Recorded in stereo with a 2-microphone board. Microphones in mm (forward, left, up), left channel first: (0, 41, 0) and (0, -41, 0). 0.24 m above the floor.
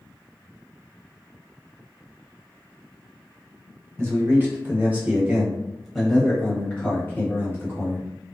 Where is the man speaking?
30° right (ahead or behind), 1.4 m; by 8.1 s 30° left (ahead or behind), 1.5 m.